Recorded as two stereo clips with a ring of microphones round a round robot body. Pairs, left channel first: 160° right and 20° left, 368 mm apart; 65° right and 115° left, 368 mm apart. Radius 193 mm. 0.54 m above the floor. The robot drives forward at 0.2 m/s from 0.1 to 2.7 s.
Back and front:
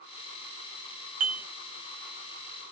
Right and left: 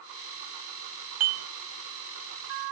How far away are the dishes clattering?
About 1.1 m.